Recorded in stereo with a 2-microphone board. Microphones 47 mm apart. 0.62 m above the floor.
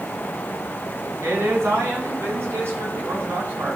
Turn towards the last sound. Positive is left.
turn(degrees=-45)  # may be behind; listen again after turning